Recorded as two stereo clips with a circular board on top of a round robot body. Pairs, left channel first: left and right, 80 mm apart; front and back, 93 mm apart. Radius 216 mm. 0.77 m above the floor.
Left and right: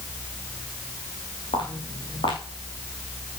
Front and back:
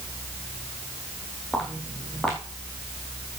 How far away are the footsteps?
About 0.8 m.